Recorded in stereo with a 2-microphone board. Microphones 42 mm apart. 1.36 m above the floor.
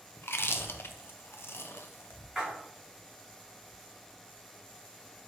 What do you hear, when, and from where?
0.2 s chewing: 70° left (ahead or behind), 0.7 m
2.4 s a splash: 5° right (ahead or behind), 3.5 m